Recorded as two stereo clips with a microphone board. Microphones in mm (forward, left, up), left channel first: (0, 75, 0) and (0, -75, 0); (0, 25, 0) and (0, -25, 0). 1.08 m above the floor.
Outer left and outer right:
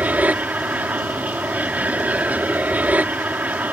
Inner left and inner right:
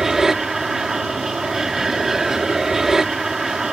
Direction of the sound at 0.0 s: 10° right (ahead or behind).